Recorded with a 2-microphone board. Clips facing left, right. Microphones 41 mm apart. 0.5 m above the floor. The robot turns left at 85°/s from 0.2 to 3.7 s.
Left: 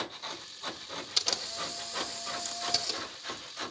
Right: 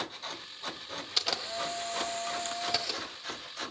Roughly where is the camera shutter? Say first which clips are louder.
Right 2 dB; ahead.